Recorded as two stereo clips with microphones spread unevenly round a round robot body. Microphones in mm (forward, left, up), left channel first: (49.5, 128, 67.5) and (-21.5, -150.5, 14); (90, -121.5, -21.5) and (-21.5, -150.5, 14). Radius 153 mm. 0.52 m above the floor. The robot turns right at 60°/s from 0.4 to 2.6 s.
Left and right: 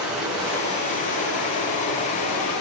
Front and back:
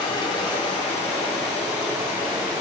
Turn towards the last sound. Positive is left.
turn(degrees=110)